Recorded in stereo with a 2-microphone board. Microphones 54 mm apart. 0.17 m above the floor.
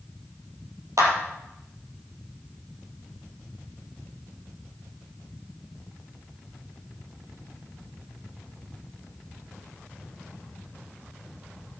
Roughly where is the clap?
Right.